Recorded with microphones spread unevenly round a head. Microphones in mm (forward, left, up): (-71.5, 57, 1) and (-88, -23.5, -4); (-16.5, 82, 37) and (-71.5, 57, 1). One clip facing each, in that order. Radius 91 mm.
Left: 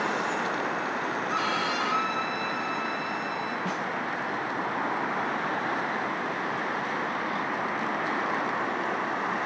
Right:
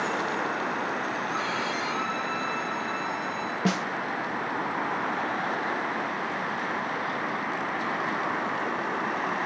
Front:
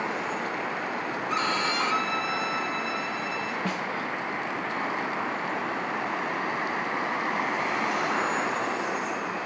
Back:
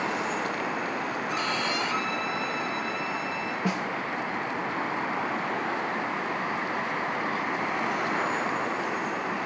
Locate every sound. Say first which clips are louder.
1.3 s a violin: left 2 dB, front 4 dB; 25° left, 2.5 m
3.6 s a snare drum: right 4 dB, back 5 dB; 85° right, 0.6 m